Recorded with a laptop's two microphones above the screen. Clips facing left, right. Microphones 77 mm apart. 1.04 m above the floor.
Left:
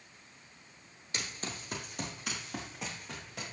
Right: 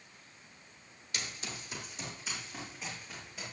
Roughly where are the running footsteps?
Left.